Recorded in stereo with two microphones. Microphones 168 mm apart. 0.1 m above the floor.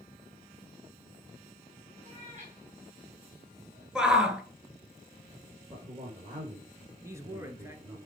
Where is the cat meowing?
45° right (ahead or behind), 4.5 m; by 3.9 s 65° right (ahead or behind), 5 m.